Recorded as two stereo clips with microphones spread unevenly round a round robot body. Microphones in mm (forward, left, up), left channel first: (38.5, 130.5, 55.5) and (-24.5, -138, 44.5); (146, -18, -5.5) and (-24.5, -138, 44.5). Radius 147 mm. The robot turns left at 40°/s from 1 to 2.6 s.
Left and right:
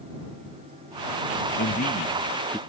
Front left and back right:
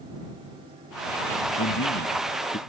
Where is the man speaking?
25° left; by 2.6 s 15° right.